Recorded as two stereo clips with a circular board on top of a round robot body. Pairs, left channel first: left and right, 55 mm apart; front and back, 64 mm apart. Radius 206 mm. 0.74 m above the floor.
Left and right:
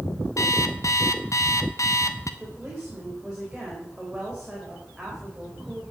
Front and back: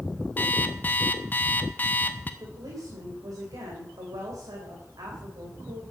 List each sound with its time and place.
0.4 s an alarm clock: 65° left, 1.1 m
2.4 s a woman speaking: 170° right, 3.5 m